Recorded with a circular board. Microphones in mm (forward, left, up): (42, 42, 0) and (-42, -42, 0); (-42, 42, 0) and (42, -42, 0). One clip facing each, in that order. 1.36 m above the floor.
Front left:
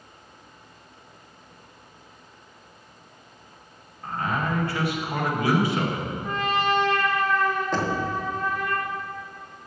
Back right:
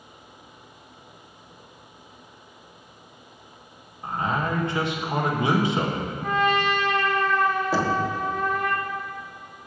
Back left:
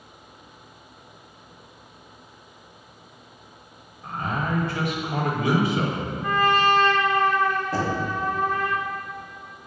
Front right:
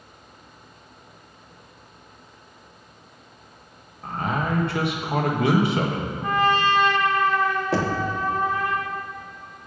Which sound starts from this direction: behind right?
A trumpet, at 6.2 s.